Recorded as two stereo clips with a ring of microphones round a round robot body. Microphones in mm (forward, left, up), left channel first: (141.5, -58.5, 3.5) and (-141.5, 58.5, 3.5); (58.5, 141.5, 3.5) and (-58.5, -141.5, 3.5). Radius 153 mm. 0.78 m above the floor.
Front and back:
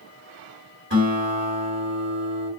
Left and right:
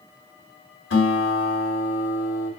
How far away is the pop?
I don't hear a pop.